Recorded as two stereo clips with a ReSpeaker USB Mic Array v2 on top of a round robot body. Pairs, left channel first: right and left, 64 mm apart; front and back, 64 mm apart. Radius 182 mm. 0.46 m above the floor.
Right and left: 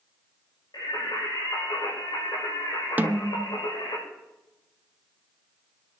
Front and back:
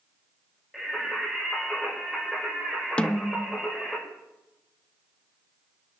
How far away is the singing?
About 7 m.